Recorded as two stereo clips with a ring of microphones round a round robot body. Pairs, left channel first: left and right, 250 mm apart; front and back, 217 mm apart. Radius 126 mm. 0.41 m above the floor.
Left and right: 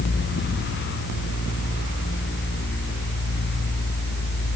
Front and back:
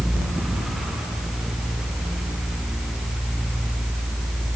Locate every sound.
Only background noise.